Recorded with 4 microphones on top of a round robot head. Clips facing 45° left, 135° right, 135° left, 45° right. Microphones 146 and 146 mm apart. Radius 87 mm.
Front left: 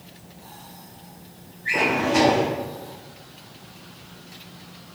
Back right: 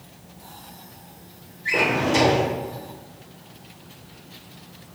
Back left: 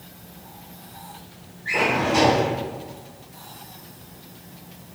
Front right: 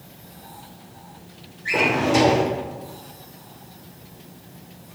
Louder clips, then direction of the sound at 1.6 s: Even, front right 2 dB; 80° right.